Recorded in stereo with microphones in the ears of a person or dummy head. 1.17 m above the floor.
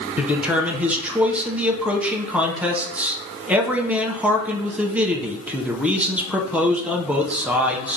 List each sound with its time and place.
0.2 s a man speaking: 5° right (ahead or behind), 0.6 m